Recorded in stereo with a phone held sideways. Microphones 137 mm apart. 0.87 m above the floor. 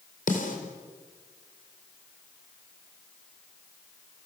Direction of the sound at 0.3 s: 75° left (ahead or behind).